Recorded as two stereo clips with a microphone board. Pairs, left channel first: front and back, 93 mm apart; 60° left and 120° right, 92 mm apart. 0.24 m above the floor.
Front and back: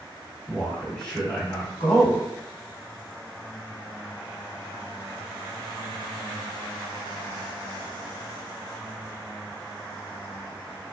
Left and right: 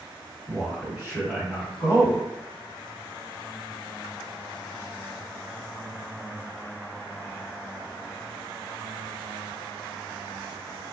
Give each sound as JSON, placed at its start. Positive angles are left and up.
{"t": 0.5, "sound": "a man speaking", "azimuth_deg": -75, "distance_m": 1.6}